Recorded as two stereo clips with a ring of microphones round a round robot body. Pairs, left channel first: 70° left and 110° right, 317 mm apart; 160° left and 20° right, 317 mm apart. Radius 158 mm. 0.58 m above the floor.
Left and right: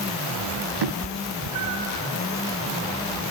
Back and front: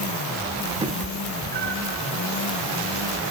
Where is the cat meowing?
100° right, 0.6 m; by 2.0 s 80° right, 2.5 m.